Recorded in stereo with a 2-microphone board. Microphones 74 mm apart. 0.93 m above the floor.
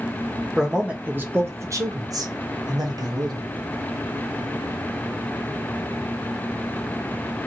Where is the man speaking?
5° right (ahead or behind), 0.8 m; by 3.5 s 60° right (ahead or behind), 1.2 m.